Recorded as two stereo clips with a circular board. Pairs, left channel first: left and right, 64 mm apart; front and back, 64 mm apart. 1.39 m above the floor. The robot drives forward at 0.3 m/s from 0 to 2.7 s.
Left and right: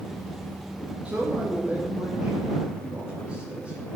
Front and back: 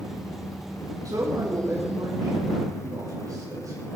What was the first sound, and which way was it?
A man speaking, 160° right.